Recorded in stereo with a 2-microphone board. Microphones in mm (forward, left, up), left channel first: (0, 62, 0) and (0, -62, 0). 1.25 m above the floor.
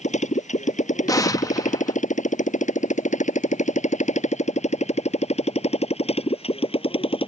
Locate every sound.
0.0 s a motorcycle: 70° left (ahead or behind); by 7.3 s 50° left (ahead or behind)
1.1 s an explosion: 30° left (ahead or behind)